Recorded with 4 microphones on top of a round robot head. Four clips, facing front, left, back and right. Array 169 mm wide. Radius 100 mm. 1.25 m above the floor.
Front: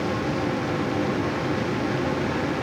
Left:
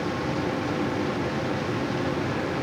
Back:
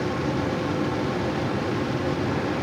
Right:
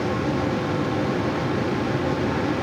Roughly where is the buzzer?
No buzzer in this recording.